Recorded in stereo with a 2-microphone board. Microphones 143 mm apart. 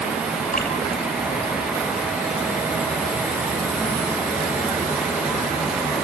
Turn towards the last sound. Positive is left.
turn(degrees=55)  # may be behind; listen again after turning